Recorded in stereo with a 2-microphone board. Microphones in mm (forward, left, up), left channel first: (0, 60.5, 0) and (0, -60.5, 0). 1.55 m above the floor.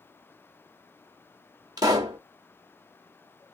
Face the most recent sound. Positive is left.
turn(degrees=-30)  # may be behind; listen again after turning